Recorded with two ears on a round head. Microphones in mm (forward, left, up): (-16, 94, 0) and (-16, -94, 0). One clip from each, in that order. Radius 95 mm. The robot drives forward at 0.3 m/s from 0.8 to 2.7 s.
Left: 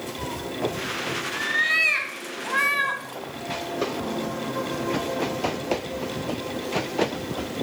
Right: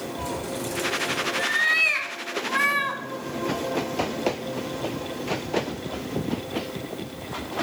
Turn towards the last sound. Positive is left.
turn(degrees=5)  # may be behind; listen again after turning